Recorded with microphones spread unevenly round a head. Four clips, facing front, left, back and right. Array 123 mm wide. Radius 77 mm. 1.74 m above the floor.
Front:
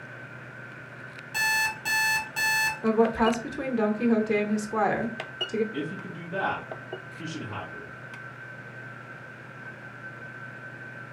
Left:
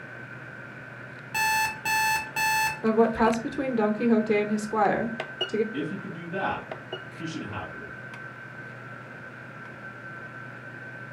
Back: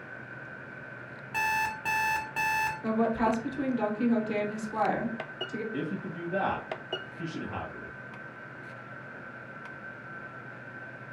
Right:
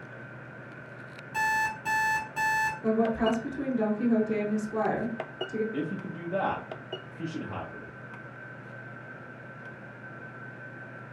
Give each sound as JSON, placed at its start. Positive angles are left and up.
{"t": 1.3, "sound": "an alarm clock", "azimuth_deg": 125, "distance_m": 0.9}
{"t": 2.8, "sound": "a woman speaking", "azimuth_deg": 55, "distance_m": 0.7}
{"t": 5.7, "sound": "a man speaking", "azimuth_deg": -90, "distance_m": 1.2}